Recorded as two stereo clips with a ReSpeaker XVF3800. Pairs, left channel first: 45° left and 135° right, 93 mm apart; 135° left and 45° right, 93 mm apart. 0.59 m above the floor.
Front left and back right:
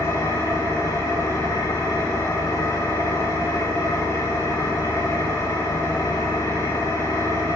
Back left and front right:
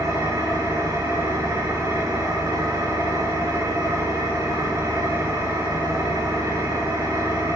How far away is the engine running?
About 5.5 m.